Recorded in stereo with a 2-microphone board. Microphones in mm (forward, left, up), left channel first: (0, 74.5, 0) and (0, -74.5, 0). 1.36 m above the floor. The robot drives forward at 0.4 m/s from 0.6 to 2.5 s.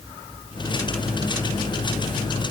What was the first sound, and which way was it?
Only background noise.